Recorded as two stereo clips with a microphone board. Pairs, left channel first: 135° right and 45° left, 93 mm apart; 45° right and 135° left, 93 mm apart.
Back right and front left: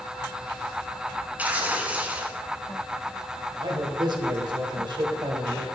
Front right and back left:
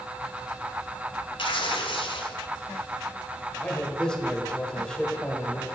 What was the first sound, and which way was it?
Tearing paper, 25° right.